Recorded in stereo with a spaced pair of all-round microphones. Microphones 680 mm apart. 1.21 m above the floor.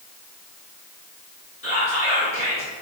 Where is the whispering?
20° left (ahead or behind), 1.7 m.